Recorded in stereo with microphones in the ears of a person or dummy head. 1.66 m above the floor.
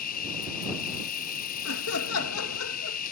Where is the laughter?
85° left.